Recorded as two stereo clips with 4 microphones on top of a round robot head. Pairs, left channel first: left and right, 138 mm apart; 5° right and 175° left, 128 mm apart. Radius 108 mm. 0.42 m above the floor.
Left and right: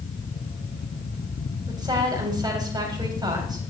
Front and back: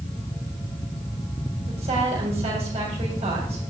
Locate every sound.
1.7 s a woman speaking: 150° right, 3 m